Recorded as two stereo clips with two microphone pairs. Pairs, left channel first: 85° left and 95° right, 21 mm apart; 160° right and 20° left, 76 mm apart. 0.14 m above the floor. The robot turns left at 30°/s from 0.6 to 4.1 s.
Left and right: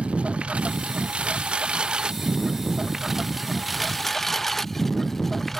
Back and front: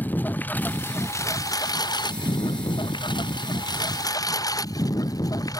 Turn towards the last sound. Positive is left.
turn(degrees=160)